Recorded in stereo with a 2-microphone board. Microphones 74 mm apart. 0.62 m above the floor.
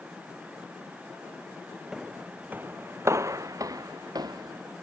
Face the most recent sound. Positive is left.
turn(degrees=-70)  # may be behind; listen again after turning